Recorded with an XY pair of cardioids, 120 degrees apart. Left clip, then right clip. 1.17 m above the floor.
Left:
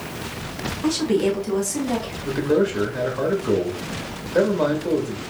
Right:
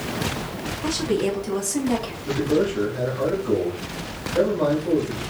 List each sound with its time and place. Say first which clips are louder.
0.8 s a woman speaking: left 3 dB; 15° left, 1.8 m; by 2.1 s 10° right, 1.7 m
2.2 s a man speaking: left 2 dB; 40° left, 2 m